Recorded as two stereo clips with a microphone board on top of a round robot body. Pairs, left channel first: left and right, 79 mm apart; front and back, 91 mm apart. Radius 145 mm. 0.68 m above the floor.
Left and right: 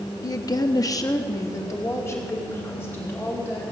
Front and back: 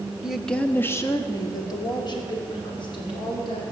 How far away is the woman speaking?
About 1.4 m.